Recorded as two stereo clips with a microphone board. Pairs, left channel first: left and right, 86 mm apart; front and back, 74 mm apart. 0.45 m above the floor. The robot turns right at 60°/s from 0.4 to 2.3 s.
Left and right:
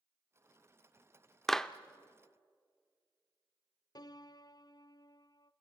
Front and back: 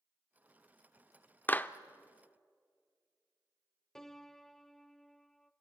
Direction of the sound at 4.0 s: 80° left.